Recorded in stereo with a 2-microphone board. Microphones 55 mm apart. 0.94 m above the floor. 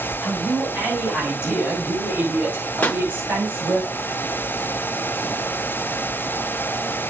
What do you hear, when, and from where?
0.2 s a man speaking: 25° right (ahead or behind), 6.5 m; by 3.8 s 35° right (ahead or behind), 5 m
2.8 s a pop: 30° left (ahead or behind), 0.8 m